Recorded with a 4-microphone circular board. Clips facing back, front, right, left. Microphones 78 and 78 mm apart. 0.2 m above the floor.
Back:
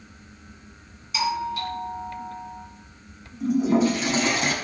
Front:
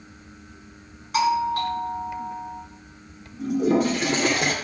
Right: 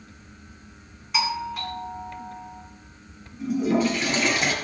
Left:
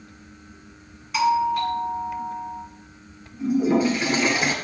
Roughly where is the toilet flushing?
Ahead.